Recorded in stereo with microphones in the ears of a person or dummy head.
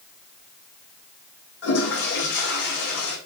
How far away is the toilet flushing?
About 3 m.